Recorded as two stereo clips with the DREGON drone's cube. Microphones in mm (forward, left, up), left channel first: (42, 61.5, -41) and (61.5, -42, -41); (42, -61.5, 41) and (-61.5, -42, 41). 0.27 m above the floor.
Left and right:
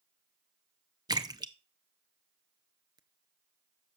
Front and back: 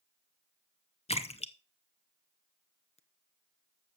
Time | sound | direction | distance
1.1 | a splash | 25° right | 0.7 m